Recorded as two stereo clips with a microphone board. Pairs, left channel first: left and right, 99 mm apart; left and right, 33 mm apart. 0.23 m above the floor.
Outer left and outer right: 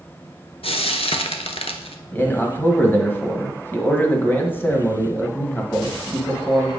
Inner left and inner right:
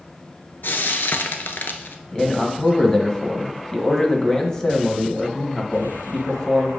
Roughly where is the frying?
Left.